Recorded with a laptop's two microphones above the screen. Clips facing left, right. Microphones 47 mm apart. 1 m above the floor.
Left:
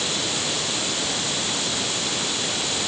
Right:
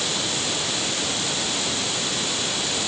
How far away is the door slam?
I don't hear a door slam.